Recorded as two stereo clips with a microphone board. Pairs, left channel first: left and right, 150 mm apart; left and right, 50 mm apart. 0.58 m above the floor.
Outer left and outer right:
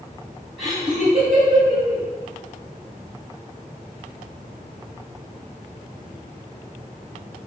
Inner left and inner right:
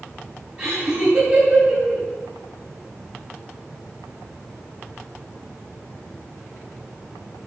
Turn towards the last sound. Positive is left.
turn(degrees=-50)  # may be behind; listen again after turning